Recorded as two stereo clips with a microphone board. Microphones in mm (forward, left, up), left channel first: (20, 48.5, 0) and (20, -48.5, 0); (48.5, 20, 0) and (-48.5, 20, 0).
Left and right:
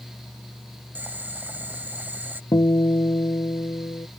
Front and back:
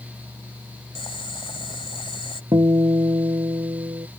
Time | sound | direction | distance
0.9 | boiling | 20° right | ?
2.5 | a guitar | 135° left | ?